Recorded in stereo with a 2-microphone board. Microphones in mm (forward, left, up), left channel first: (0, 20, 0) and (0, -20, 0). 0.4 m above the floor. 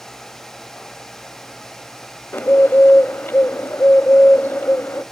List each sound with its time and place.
2.3 s a bird: 75° left (ahead or behind), 0.6 m